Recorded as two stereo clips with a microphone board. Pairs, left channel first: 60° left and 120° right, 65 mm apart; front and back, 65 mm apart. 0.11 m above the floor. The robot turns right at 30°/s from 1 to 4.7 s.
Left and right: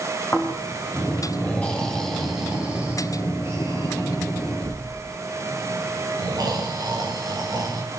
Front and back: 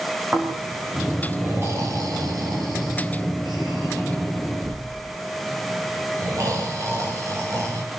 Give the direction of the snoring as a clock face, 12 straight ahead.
8 o'clock.